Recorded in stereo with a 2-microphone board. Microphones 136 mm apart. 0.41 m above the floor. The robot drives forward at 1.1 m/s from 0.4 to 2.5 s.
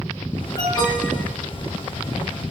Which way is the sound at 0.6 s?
30° left (ahead or behind).